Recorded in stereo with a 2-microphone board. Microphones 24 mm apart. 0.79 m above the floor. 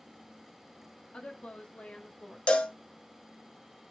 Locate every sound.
1.1 s a woman speaking: 60° left (ahead or behind), 1.1 m; by 2.4 s 65° left (ahead or behind), 1.3 m
2.5 s a cowbell: 60° left (ahead or behind), 0.6 m